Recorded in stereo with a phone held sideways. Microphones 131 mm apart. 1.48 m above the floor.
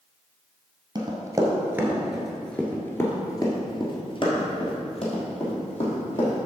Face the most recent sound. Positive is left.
turn(degrees=65)  # may be behind; listen again after turning